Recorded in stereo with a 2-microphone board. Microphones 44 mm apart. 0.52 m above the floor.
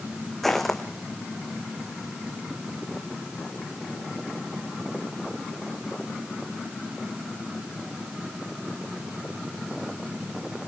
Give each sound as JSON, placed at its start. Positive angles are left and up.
{"t": 0.4, "sound": "footsteps", "side_deg": 5, "distance_m": 2.0}